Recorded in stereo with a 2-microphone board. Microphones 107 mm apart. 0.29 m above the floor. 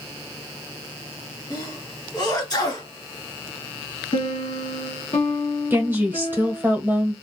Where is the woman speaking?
20° right (ahead or behind), 1.3 m.